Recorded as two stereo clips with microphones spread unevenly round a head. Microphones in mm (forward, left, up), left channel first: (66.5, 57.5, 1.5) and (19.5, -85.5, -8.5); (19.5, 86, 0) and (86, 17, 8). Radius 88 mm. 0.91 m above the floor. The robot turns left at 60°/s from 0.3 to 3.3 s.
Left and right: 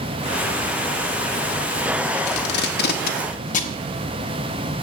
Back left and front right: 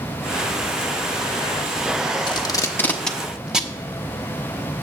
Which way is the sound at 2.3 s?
100° left.